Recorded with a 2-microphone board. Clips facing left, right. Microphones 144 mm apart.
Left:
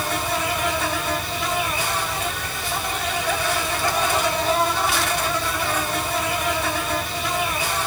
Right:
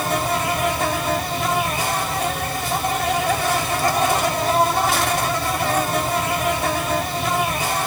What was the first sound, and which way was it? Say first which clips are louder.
An insect: right 3 dB; 45° right (ahead or behind).